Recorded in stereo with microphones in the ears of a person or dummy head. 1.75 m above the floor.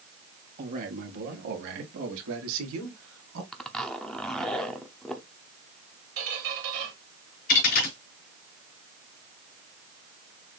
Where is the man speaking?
45° right (ahead or behind), 2.5 m; by 3.4 s 85° right, 2 m.